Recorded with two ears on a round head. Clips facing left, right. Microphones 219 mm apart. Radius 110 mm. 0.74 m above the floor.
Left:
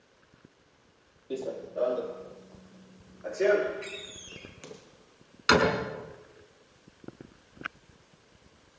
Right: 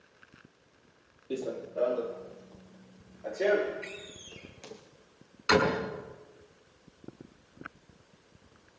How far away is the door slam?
About 5.5 m.